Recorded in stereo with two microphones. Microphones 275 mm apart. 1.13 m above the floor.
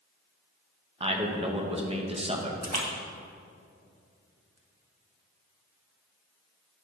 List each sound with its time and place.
1.0 s a man speaking: 20° right (ahead or behind), 1.0 m
2.6 s a splash: 65° right (ahead or behind), 1.0 m